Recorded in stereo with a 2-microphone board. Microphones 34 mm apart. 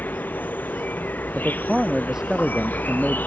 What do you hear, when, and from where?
0.0 s an insect: 65° left (ahead or behind)
1.4 s a man speaking: 15° right (ahead or behind)